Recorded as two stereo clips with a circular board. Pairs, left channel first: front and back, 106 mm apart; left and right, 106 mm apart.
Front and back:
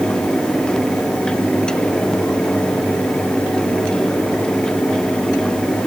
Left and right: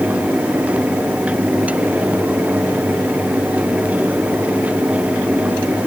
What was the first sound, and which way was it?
Only background noise.